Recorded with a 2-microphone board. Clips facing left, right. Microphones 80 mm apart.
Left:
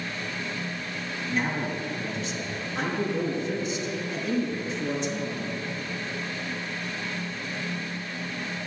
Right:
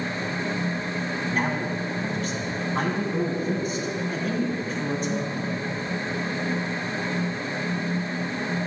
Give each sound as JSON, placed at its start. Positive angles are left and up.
{"t": 1.3, "sound": "a man speaking", "side_deg": -50, "distance_m": 2.5}